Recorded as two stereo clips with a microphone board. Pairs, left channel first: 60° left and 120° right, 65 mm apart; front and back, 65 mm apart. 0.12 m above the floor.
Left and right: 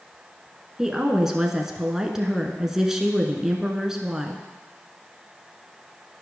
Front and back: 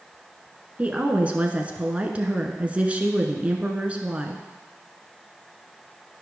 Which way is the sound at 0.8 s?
170° left.